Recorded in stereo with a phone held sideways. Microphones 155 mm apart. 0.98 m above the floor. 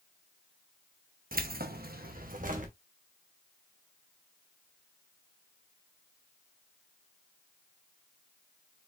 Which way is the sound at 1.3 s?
70° right (ahead or behind).